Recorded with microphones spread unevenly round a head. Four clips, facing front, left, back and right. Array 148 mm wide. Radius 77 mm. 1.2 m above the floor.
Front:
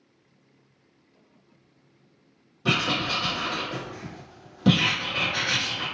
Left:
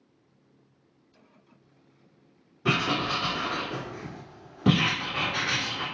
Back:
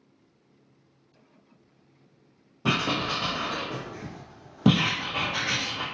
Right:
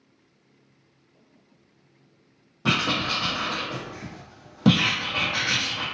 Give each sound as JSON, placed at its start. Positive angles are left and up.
{"t": 2.6, "sound": "writing", "azimuth_deg": -140, "distance_m": 0.9}